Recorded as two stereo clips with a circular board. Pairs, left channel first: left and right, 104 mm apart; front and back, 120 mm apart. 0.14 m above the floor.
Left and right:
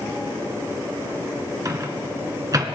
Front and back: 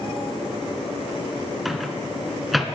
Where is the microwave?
90° right, 1.1 m.